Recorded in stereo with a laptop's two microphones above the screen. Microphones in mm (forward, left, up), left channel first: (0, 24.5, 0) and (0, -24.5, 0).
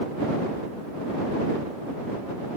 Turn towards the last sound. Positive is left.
No sound to turn to.